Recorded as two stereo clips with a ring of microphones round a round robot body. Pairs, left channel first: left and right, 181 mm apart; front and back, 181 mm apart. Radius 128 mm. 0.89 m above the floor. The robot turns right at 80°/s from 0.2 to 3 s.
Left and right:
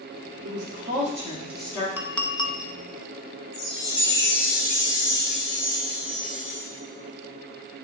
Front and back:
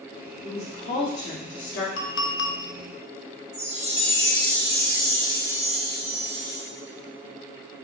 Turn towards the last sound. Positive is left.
turn(degrees=125)